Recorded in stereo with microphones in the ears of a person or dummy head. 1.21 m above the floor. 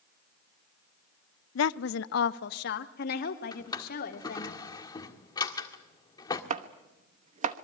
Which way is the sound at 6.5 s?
35° right (ahead or behind).